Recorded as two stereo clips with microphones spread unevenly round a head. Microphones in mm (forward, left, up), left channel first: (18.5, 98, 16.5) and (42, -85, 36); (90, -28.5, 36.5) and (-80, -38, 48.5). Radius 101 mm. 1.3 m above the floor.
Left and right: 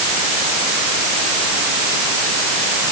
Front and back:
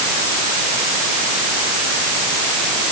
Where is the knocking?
I don't hear knocking.